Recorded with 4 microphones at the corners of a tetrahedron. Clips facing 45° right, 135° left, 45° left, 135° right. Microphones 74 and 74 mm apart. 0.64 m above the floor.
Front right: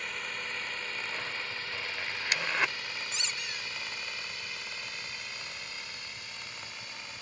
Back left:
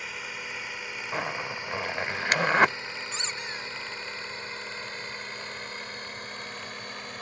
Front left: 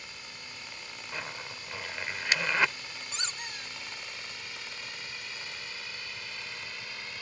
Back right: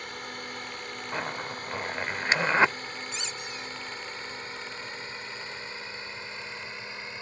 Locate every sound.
0.0 s a drone: 140° right; by 7.2 s 165° left
1.1 s a zipper: 165° left
3.1 s a squeak: 85° left